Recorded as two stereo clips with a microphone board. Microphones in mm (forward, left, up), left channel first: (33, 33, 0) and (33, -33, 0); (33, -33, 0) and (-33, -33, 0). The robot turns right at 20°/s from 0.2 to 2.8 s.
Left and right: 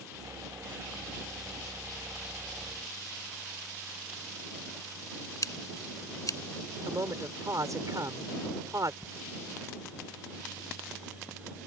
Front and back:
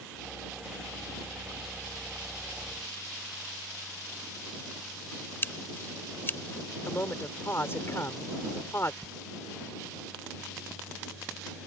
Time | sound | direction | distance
5.4 | scissors | 55° left | ?
6.9 | a man speaking | 55° right | ?
9.0 | ticking | 5° left | ?